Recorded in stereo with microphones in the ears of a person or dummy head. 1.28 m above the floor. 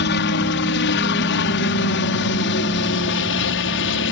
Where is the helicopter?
55° left (ahead or behind); by 4.1 s 60° left (ahead or behind).